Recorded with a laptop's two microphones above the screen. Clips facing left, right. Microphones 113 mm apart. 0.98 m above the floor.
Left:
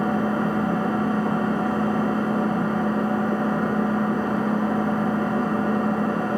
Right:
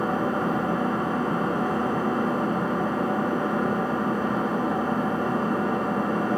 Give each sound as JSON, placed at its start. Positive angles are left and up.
{"t": 0.0, "sound": "an engine running", "side_deg": -20, "distance_m": 1.7}